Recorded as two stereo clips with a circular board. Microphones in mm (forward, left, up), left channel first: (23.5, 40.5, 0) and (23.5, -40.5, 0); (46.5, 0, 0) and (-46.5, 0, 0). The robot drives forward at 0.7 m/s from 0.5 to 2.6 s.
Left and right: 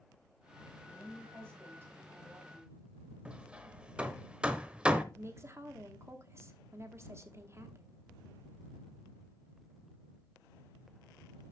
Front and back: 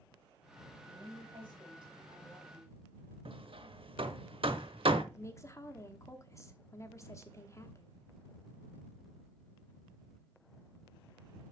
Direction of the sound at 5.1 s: 45° right.